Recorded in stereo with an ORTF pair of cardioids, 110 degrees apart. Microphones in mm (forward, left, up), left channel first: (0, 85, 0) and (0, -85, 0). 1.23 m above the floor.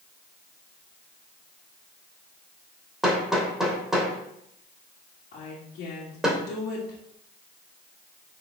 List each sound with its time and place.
3.0 s hammering: straight ahead, 2.5 m
5.3 s a woman speaking: 70° left, 2.5 m